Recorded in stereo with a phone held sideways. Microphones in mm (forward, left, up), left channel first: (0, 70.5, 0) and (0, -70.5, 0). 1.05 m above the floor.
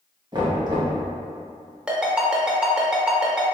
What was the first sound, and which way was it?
Knocking, 30° right (ahead or behind).